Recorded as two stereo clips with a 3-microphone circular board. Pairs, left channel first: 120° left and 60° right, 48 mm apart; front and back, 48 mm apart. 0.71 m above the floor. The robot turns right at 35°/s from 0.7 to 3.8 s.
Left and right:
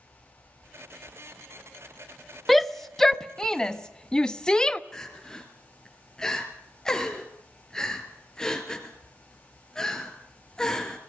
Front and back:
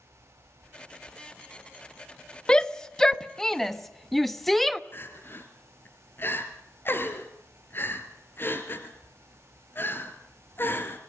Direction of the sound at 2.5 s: 35° left.